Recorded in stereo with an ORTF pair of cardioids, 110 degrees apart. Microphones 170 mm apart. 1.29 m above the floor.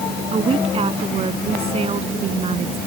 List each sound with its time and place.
0.3 s a woman speaking: 35° right